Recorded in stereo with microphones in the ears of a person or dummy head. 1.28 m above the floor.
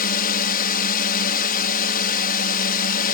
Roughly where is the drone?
Left.